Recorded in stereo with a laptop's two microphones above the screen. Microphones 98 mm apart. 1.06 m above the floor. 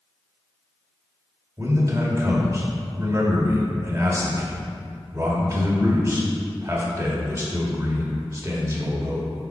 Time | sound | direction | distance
1.6 | a man speaking | 35° right (ahead or behind) | 2 m